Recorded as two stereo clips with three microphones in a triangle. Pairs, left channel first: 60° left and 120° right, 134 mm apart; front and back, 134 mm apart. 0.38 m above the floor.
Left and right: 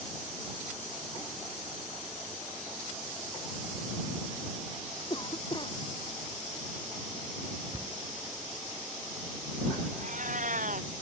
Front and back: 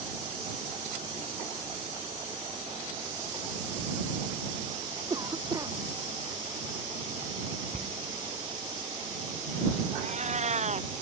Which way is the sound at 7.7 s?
Straight behind.